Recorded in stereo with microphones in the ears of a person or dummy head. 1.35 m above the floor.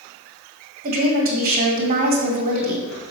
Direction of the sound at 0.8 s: 45° right (ahead or behind).